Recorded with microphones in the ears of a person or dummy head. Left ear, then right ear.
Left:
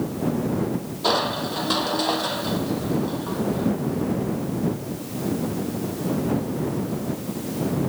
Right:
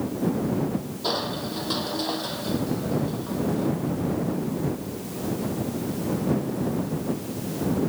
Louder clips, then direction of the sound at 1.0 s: Left 6 dB; 25° left (ahead or behind).